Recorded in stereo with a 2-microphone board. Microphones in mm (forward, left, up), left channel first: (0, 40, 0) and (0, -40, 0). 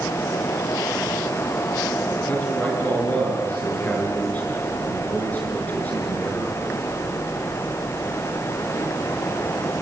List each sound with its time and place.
2.3 s a man speaking: 20° left (ahead or behind), 6.5 m